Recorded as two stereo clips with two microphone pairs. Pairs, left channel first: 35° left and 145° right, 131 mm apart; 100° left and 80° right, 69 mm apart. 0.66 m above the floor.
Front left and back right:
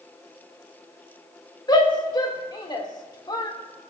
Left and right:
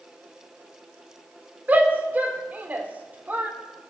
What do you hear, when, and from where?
1.7 s a shout: 20° right, 1.7 m